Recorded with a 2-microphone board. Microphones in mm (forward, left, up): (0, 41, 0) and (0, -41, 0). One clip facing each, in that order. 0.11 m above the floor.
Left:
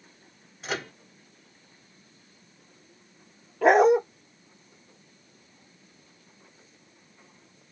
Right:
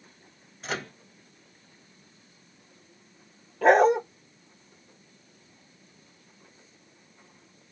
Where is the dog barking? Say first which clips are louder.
Left 1 dB; 5° left (ahead or behind), 1.0 m.